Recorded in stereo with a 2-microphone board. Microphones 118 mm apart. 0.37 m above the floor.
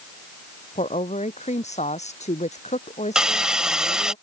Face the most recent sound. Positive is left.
turn(degrees=-5)  # may be behind; listen again after turning